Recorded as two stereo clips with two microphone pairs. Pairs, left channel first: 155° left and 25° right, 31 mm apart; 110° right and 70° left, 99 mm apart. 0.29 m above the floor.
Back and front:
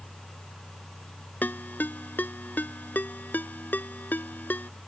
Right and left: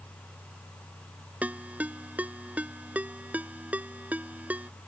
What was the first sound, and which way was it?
A ringtone, 145° left.